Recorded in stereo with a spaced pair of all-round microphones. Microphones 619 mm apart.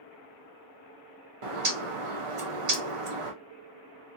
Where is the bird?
55° right (ahead or behind), 1.0 m.